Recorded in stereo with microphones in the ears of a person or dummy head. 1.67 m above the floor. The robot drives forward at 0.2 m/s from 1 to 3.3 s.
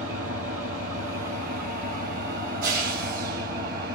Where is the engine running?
45° right (ahead or behind), 2 m; by 4.0 s 50° right (ahead or behind), 1.8 m.